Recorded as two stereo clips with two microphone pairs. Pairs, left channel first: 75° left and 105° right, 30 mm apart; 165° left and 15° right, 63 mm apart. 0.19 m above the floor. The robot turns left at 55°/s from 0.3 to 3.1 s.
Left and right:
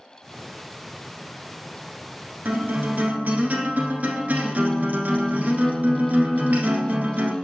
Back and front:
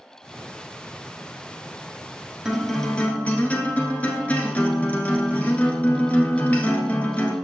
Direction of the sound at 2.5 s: 95° right.